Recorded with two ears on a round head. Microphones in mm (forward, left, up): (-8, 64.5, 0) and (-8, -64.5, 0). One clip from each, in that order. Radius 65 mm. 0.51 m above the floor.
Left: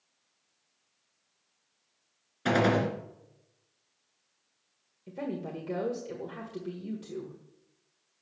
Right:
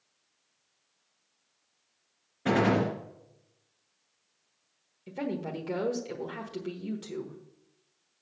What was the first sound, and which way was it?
A gunshot, 80° left.